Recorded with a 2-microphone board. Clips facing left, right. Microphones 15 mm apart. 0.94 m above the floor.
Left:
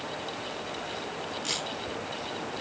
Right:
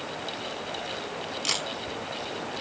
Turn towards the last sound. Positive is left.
turn(degrees=-40)  # may be behind; listen again after turning